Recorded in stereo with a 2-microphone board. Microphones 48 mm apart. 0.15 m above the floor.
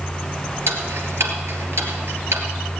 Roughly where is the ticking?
Right.